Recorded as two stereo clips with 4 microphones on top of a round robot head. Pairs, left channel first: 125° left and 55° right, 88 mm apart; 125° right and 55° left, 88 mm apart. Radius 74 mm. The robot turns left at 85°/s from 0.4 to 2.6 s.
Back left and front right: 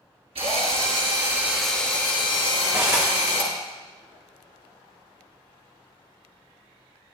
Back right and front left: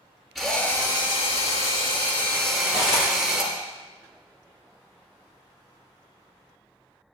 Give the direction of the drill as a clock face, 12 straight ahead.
1 o'clock.